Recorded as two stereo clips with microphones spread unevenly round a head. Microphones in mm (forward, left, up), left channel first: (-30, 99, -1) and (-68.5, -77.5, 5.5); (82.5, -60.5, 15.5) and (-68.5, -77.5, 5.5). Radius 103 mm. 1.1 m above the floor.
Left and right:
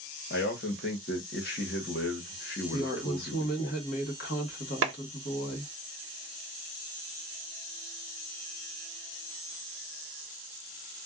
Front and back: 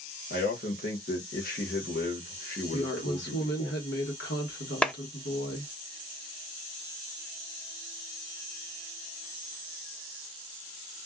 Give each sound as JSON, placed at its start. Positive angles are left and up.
{"t": 0.3, "sound": "a man speaking", "azimuth_deg": 45, "distance_m": 1.1}
{"t": 2.7, "sound": "a woman speaking", "azimuth_deg": 30, "distance_m": 1.3}
{"t": 4.8, "sound": "a clap", "azimuth_deg": -80, "distance_m": 0.7}